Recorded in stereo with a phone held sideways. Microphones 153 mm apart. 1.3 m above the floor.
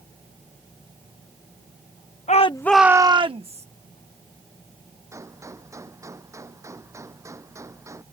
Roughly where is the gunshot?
Centre.